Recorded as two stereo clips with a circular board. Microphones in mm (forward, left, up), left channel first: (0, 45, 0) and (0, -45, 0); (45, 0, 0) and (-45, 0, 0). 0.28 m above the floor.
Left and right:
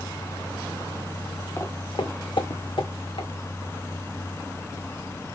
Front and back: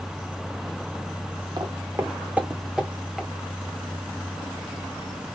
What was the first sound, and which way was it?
Footsteps, 150° left.